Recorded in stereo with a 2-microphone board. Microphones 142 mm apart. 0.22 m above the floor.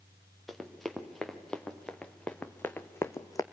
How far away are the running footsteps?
About 2.5 m.